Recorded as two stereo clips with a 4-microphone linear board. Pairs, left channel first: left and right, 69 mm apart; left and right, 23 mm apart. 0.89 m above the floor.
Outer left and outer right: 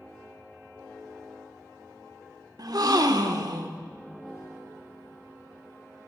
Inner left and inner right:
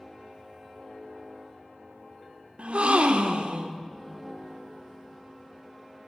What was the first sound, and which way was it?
A gasp, 65° right (ahead or behind).